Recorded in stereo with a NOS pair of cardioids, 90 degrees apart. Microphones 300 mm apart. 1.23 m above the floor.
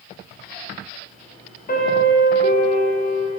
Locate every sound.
1.7 s a piano: 30° left, 1.7 m